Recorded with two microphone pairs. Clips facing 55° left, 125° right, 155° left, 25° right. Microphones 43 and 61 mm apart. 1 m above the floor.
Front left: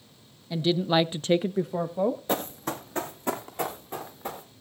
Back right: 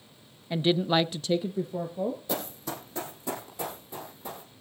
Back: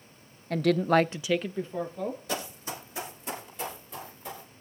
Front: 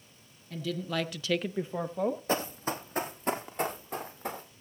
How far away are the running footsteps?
About 1.6 m.